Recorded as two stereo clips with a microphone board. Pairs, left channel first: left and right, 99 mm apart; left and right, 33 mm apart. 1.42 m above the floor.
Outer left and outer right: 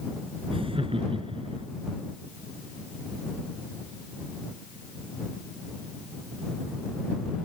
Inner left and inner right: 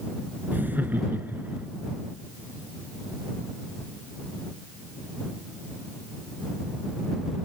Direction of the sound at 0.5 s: 65° right (ahead or behind).